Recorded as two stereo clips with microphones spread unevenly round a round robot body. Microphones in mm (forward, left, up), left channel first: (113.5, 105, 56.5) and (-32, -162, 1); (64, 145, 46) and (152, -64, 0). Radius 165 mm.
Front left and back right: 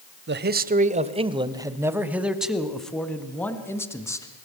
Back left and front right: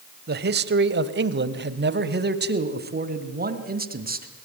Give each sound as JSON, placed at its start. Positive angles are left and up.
{"t": 0.3, "sound": "a man speaking", "azimuth_deg": -85, "distance_m": 1.5}